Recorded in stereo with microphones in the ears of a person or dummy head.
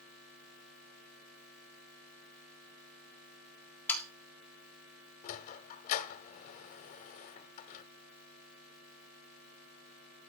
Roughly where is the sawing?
Centre.